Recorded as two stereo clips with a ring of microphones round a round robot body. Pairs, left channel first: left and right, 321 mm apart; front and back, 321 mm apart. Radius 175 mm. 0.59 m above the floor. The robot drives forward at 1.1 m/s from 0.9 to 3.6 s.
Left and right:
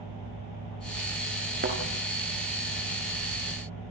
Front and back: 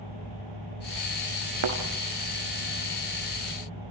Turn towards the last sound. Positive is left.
turn(degrees=-165)